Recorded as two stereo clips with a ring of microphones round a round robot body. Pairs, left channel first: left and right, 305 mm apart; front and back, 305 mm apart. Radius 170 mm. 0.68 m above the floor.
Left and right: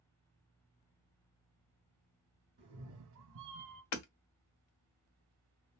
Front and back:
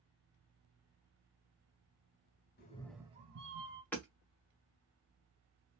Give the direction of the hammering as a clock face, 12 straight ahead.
9 o'clock.